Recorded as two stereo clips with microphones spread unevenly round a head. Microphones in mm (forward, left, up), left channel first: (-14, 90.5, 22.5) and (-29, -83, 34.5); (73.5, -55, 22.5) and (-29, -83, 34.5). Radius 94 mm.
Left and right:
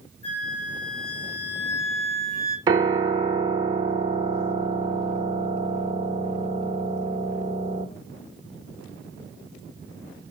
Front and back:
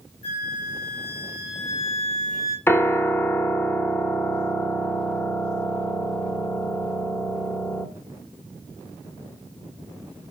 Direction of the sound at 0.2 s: 30° left.